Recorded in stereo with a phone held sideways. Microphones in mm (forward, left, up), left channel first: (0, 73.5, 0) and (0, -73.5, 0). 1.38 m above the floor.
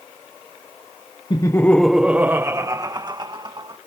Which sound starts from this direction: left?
Laughter, at 1.3 s.